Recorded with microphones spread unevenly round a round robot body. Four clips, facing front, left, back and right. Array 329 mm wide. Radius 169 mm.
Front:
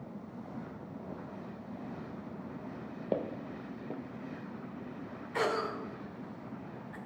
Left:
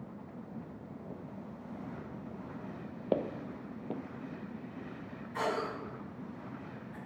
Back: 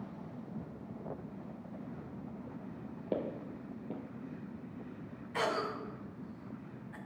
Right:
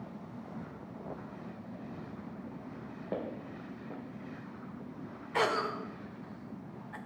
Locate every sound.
3.1 s footsteps: 120° left, 0.5 m
5.3 s a cough: 50° right, 1.4 m